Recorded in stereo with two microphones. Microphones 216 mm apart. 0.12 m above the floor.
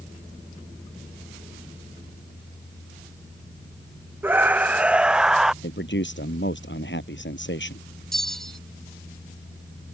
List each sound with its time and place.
4.2 s a scream: 10° right (ahead or behind); by 5.5 s centre (ahead or behind)
5.6 s a man speaking: 60° left (ahead or behind)
8.1 s a bell: centre (ahead or behind)